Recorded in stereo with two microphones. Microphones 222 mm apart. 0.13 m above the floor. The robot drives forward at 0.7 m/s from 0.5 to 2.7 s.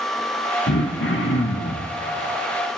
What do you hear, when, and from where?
0.7 s throat clearing: 60° left (ahead or behind), 0.7 m; by 1.9 s 45° left (ahead or behind), 0.8 m